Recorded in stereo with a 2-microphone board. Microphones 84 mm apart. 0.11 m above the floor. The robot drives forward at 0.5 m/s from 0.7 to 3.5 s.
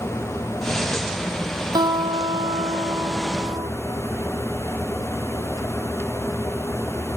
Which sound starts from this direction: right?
A guitar, at 1.8 s.